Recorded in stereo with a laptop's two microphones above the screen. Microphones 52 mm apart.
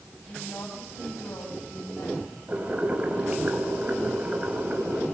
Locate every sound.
0.3 s a woman speaking: 85° left, 5 m; by 2.4 s 60° left (ahead or behind), 5.5 m
2.5 s boiling: 25° right (ahead or behind), 6 m